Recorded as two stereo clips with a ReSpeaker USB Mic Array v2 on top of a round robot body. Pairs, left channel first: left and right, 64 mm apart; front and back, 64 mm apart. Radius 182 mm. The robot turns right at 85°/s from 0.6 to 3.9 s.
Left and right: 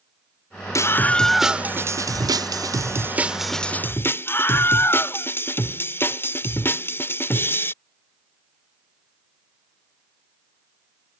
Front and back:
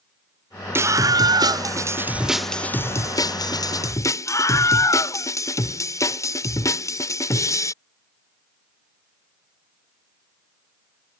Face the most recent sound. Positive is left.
turn(degrees=35)